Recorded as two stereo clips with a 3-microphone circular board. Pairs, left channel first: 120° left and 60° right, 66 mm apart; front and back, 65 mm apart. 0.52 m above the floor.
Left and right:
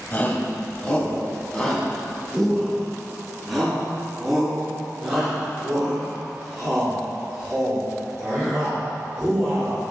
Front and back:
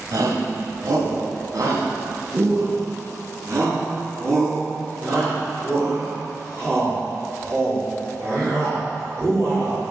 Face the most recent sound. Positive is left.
turn(degrees=-135)